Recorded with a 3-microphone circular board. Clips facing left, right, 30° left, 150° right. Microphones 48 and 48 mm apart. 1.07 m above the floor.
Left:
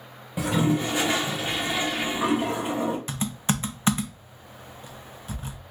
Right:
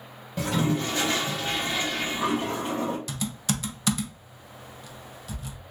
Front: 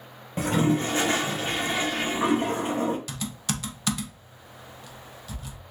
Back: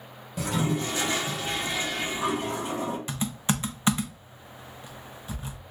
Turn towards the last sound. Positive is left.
turn(degrees=145)